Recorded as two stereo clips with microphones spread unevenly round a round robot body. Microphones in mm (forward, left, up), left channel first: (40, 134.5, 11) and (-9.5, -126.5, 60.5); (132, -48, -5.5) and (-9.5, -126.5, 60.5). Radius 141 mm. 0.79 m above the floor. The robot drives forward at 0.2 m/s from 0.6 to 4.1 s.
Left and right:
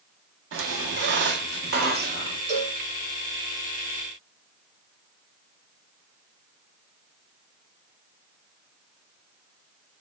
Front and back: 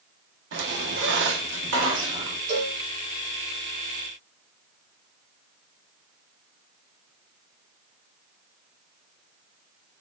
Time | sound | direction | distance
0.5 | a squeak | 145° right | 0.5 m
2.5 | a cowbell | 150° right | 1.3 m